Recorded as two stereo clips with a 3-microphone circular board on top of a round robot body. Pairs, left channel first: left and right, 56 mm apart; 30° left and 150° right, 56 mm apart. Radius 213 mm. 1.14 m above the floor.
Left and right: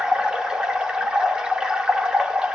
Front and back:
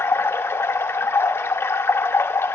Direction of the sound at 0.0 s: 15° right.